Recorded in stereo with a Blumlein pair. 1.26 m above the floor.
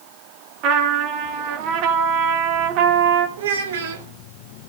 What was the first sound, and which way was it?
A trumpet, 40° right.